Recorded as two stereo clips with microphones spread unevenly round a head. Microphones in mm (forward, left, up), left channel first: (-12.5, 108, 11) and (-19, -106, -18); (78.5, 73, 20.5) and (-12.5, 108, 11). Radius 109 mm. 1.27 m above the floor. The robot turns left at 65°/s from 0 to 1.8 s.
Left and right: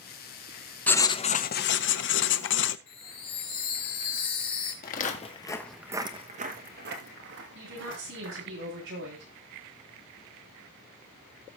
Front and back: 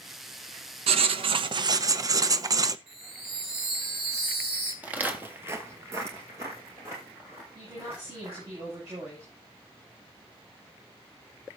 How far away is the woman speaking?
About 8.5 m.